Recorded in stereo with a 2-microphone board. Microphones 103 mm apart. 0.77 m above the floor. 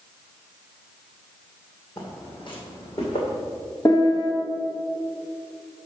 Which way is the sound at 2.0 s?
45° left (ahead or behind).